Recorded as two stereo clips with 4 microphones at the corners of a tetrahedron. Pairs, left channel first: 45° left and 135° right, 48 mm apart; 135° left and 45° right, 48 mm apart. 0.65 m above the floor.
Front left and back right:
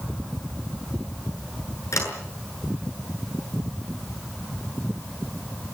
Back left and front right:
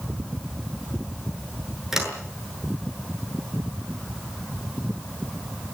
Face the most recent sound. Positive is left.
turn(degrees=35)